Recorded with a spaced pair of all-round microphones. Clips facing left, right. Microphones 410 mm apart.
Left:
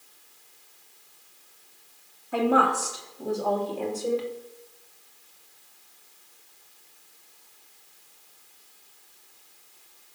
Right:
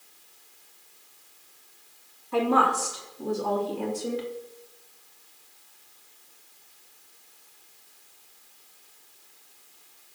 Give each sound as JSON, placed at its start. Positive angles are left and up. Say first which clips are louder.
{"t": 2.3, "sound": "a woman speaking", "louder": "left 1 dB", "side_deg": -5, "distance_m": 3.0}